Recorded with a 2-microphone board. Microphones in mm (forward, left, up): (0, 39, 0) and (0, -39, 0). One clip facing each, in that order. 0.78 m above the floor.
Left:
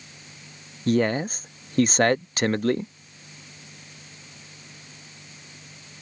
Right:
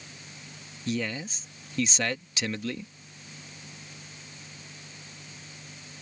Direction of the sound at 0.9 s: 50° left (ahead or behind).